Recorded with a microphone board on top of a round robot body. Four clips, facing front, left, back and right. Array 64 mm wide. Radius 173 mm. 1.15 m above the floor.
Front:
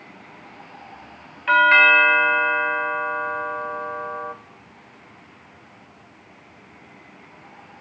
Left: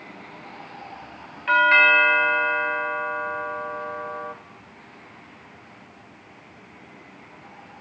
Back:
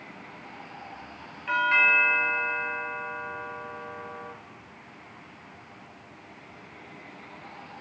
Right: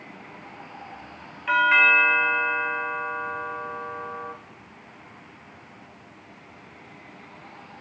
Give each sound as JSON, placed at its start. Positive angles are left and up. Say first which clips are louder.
{"t": 1.5, "sound": "a doorbell", "louder": "left 2 dB, front 9 dB", "azimuth_deg": 15, "distance_m": 1.6}